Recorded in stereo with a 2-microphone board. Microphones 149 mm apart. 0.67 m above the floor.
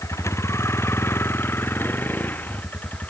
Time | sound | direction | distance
0.0 | a vehicle | 20° left (ahead or behind) | ?